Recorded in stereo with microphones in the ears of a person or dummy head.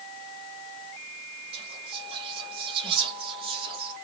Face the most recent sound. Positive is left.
turn(degrees=-30)  # may be behind; listen again after turning